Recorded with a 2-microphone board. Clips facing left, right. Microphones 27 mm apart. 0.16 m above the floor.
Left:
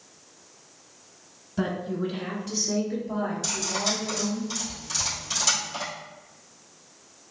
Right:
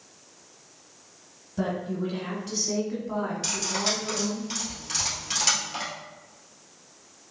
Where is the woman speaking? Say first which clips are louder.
Left 1 dB; 20° left (ahead or behind), 1.2 m; by 4.4 s 55° right (ahead or behind), 1.9 m.